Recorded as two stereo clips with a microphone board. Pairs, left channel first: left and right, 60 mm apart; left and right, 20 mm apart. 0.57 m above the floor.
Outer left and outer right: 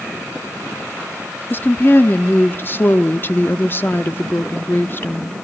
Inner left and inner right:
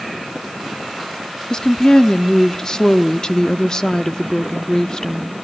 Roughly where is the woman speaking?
Left.